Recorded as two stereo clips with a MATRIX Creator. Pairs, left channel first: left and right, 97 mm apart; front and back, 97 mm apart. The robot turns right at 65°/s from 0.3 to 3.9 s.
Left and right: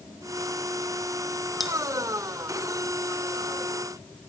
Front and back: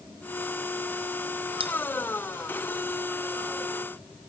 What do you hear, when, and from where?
1.6 s cutlery clinking: straight behind, 2.5 m; by 1.7 s 170° right, 2.5 m